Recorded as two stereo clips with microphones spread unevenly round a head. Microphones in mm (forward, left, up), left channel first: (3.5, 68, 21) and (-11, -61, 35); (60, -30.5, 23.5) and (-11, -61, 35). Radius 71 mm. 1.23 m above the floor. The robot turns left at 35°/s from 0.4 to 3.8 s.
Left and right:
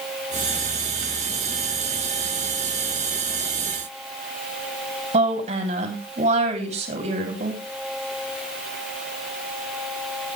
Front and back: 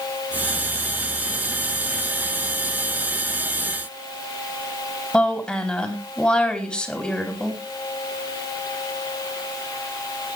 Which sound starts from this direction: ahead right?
A woman speaking, at 5.1 s.